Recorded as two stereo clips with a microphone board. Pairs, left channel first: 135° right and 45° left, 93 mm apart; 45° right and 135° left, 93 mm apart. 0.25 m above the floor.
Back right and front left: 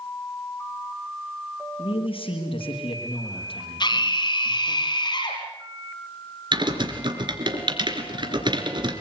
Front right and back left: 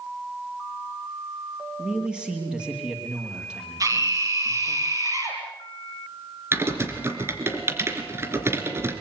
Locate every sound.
1.8 s a man speaking: 145° right, 7 m
3.8 s a scream: 170° right, 6.5 m
6.5 s typing on a keyboard: 75° left, 3 m